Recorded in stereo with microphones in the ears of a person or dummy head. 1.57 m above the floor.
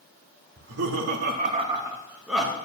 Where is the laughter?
75° right (ahead or behind), 1.0 m; by 2.5 s centre (ahead or behind), 1.5 m.